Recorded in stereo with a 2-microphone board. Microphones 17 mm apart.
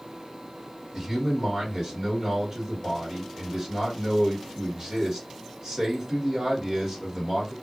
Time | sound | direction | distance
0.9 | a man speaking | 45° right (ahead or behind) | 1.7 m